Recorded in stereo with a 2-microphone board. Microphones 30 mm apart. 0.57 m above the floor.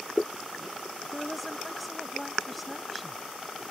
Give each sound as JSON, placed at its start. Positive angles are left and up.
{"t": 1.0, "sound": "a woman speaking", "side_deg": 0}